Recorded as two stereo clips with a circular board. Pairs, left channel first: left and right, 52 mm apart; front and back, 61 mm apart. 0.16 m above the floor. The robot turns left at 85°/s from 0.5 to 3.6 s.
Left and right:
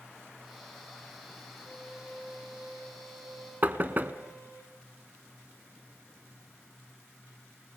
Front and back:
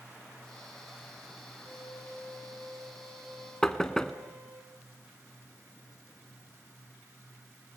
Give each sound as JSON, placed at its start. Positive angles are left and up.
{"t": 1.7, "sound": "a violin", "azimuth_deg": 30, "distance_m": 7.5}
{"t": 3.6, "sound": "knocking", "azimuth_deg": -70, "distance_m": 0.9}